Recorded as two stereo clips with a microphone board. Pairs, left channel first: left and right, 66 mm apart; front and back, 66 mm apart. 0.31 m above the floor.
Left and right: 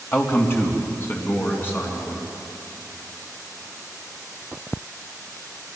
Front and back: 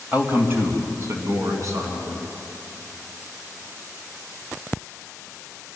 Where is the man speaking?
120° left, 1.7 m; by 2.2 s 150° left, 4.5 m.